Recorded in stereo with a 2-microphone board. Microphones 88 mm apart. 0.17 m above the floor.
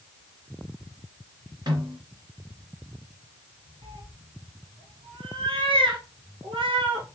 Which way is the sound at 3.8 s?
80° right.